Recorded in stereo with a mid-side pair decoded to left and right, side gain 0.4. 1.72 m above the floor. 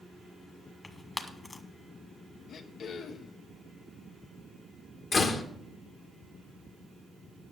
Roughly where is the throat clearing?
Ahead left.